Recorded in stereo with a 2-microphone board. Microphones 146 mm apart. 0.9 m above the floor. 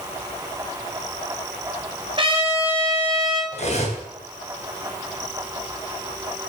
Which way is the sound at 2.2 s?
40° right (ahead or behind).